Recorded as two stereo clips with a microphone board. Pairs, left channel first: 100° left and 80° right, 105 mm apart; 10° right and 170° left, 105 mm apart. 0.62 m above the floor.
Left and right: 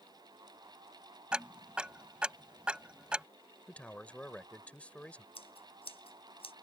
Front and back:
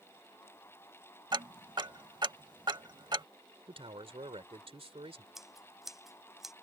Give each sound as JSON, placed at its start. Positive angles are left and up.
{"t": 1.3, "sound": "ticking", "azimuth_deg": -160}
{"t": 3.7, "sound": "a man speaking", "azimuth_deg": 175}
{"t": 5.3, "sound": "scissors", "azimuth_deg": 80}